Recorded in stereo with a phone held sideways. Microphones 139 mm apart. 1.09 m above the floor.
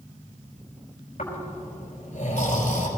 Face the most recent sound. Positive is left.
turn(degrees=75)  # may be behind; listen again after turning